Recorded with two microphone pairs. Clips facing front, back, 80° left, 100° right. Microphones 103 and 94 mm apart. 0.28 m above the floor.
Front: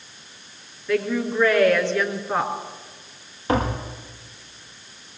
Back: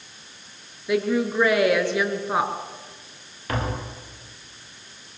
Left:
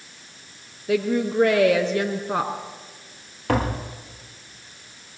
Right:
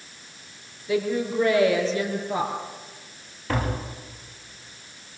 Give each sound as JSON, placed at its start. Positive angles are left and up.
{"t": 0.9, "sound": "a woman speaking", "azimuth_deg": 105, "distance_m": 4.5}
{"t": 3.5, "sound": "tapping", "azimuth_deg": 60, "distance_m": 5.5}